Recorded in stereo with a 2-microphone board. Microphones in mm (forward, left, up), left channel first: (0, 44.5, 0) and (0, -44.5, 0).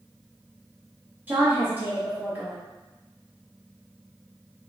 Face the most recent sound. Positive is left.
turn(degrees=-20)  # may be behind; listen again after turning